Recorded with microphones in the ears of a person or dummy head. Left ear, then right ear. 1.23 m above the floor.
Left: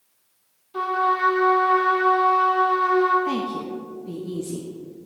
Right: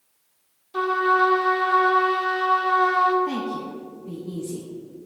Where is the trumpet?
25° right (ahead or behind), 1.1 m.